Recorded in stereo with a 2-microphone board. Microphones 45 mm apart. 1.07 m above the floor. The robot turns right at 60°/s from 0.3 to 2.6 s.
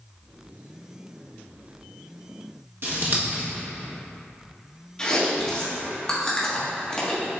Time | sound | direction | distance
2.8 | scissors | 55° right (ahead or behind) | 1.5 m
5.0 | chewing | 20° left (ahead or behind) | 1.5 m